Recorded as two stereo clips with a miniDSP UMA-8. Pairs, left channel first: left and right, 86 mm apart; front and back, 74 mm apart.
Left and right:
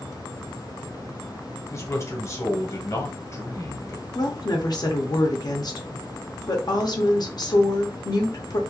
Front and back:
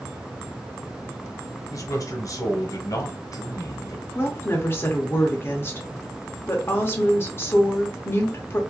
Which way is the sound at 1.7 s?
35° left.